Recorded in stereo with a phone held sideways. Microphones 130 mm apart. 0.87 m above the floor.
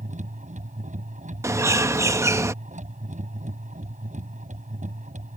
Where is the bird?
25° right (ahead or behind).